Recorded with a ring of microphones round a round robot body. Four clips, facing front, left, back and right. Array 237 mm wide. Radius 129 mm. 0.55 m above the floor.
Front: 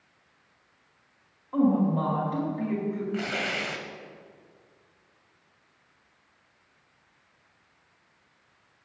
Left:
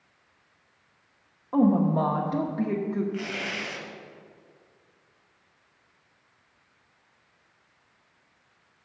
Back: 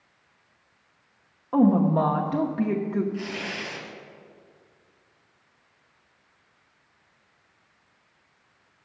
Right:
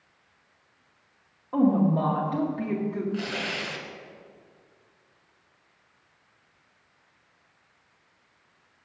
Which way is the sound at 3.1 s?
15° right.